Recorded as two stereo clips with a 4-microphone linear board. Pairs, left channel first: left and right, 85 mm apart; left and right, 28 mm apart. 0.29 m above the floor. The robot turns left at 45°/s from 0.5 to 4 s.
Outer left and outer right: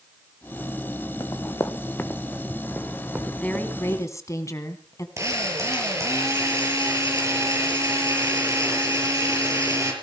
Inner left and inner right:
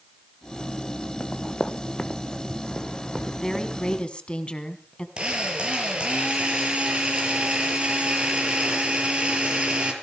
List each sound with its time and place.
1.2 s running footsteps: 55° left (ahead or behind), 1.6 m; by 4.0 s 60° right (ahead or behind), 4 m
3.2 s a woman speaking: 170° left, 3 m; by 5.1 s 135° left, 3 m
5.2 s a drill: 35° right (ahead or behind), 5.5 m